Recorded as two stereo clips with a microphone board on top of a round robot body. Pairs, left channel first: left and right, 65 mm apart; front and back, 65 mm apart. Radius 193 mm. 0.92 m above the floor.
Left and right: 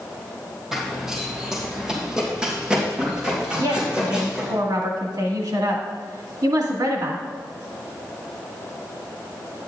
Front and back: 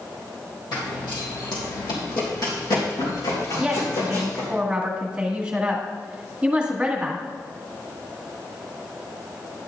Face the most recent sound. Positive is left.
turn(degrees=-105)